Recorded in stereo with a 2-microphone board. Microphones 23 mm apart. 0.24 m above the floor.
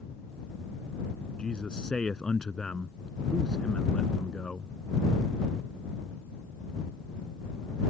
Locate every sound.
1.4 s a man speaking: 40° left (ahead or behind)